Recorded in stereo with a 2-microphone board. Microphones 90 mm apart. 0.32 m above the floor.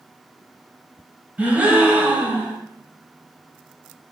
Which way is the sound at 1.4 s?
15° right (ahead or behind).